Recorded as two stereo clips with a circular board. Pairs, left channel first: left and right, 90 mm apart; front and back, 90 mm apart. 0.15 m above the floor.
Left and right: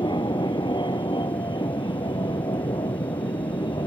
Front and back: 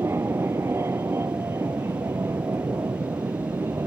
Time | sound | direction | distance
0.0 | an aircraft | 120° left | ?